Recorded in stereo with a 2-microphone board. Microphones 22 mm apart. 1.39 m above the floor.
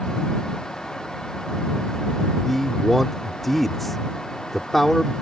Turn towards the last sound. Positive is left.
turn(degrees=5)  # may be behind; listen again after turning